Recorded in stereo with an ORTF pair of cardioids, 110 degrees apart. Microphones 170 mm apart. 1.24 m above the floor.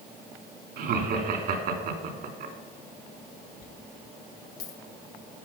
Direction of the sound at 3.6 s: 70° left.